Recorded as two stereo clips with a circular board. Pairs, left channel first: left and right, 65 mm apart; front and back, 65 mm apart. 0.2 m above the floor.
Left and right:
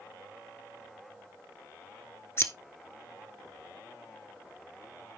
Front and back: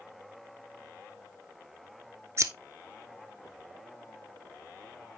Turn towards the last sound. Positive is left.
turn(degrees=135)